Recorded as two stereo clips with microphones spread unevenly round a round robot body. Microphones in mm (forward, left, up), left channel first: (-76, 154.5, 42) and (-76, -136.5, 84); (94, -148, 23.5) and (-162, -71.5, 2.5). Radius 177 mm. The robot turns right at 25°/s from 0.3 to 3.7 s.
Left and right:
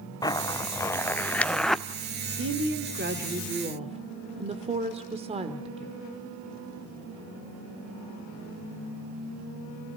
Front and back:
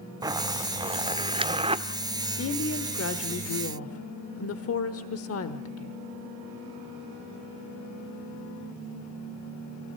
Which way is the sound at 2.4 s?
50° right.